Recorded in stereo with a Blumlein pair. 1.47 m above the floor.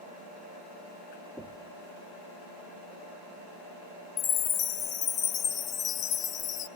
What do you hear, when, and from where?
1.4 s knocking: 10° right, 1.0 m
4.2 s a chime: 30° left, 0.9 m